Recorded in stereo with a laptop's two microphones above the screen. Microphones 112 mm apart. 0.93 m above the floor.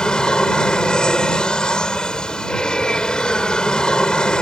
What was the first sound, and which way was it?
An aircraft, 5° left (ahead or behind).